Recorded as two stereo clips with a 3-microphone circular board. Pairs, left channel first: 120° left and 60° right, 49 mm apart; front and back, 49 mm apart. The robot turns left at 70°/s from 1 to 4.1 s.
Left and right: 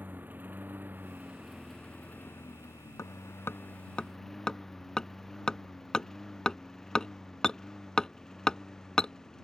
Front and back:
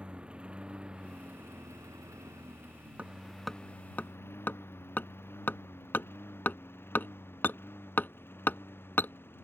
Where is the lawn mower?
110° right; by 9.4 s 40° left.